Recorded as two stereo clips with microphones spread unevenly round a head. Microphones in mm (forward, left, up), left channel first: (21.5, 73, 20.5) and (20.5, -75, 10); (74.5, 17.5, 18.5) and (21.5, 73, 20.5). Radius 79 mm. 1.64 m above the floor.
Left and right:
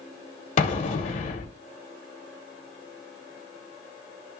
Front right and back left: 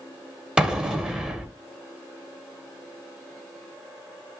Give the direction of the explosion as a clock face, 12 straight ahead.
10 o'clock.